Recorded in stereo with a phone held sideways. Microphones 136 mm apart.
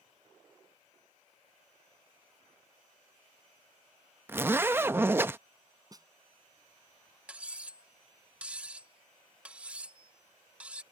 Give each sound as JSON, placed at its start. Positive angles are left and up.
{"t": 4.3, "sound": "a zipper", "side_deg": -15}
{"t": 5.9, "sound": "a snare drum", "side_deg": -25}
{"t": 7.3, "sound": "cutlery clinking", "side_deg": -10}